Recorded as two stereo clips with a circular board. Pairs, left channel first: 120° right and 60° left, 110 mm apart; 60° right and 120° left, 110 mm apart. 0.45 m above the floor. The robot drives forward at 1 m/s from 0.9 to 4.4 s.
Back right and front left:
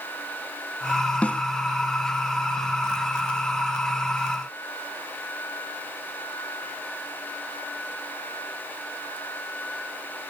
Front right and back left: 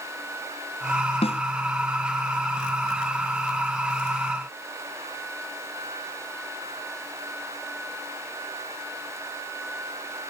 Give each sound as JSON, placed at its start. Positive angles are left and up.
{"t": 1.2, "sound": "a snare drum", "azimuth_deg": -45}